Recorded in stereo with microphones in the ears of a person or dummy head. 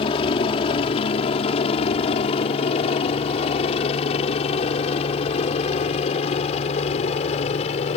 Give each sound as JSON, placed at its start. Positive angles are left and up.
{"t": 0.0, "sound": "a helicopter", "side_deg": 30}